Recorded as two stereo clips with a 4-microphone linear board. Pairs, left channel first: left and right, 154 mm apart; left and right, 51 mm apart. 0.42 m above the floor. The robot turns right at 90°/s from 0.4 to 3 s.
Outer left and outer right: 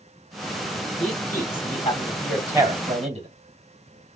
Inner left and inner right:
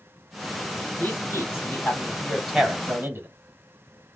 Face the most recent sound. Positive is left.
turn(degrees=-135)